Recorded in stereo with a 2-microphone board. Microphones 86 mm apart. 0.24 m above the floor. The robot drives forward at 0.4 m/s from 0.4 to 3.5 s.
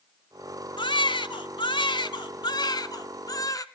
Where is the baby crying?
60° left (ahead or behind), 1.0 m; by 3.6 s 40° left (ahead or behind), 1.3 m.